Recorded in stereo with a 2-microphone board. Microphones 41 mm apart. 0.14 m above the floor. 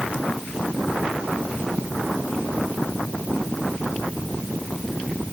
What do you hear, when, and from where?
Only background noise.